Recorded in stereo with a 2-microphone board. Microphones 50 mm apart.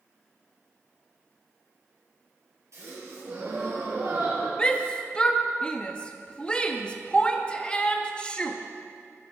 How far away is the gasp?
About 3.5 m.